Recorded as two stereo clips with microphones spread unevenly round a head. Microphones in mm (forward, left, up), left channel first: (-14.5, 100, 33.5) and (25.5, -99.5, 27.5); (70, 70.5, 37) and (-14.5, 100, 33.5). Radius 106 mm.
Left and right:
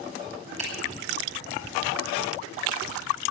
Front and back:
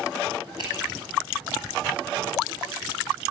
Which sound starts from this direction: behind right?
A finger snap, at 0.6 s.